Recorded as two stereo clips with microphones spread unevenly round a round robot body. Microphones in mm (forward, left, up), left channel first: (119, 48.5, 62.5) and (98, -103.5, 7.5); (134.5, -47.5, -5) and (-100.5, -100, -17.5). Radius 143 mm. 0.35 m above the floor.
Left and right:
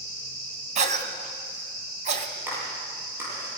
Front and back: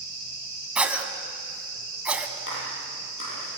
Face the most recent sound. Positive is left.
turn(degrees=-20)